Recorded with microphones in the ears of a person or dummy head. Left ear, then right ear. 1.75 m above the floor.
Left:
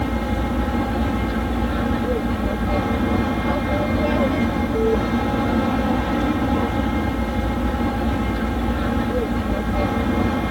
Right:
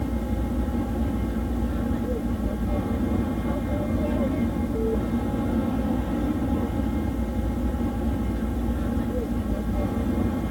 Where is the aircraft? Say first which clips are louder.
Left 7 dB; 45° left (ahead or behind).